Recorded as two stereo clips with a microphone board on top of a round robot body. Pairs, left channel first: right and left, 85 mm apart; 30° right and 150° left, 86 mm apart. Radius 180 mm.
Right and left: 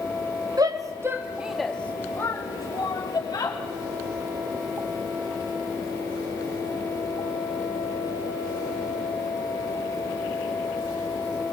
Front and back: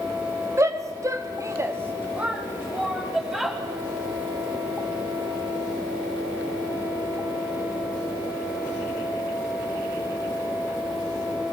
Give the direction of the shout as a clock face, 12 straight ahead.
8 o'clock.